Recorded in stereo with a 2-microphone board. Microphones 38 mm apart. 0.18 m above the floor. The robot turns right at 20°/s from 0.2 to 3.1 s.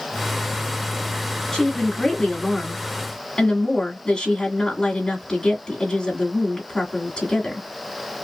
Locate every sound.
1.5 s a woman speaking: 30° left, 1.6 m; by 7.7 s 60° left, 1.6 m